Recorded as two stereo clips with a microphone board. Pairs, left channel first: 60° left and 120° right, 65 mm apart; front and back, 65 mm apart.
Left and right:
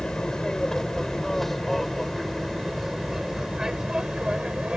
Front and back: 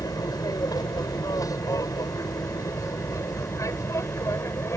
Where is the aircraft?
20° right; by 4.8 s 45° right.